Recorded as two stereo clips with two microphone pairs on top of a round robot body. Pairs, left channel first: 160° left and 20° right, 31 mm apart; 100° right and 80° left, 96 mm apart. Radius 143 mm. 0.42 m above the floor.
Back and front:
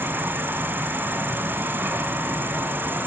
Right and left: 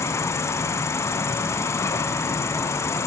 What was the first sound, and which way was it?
An insect, 35° right.